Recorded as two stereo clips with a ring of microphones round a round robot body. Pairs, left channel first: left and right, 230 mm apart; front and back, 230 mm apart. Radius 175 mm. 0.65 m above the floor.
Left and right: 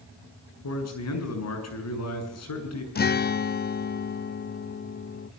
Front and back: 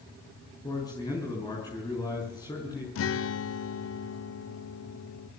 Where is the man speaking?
80° left, 7 m.